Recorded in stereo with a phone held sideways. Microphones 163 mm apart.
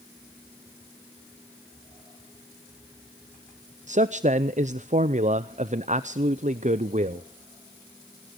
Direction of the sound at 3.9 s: 50° right (ahead or behind).